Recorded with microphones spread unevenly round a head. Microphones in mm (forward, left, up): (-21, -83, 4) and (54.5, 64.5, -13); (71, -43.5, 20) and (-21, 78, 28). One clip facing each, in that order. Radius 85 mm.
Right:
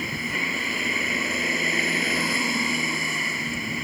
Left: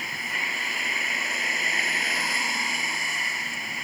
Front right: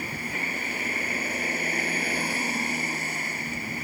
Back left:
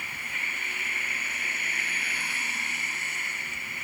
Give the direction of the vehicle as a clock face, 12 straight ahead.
4 o'clock.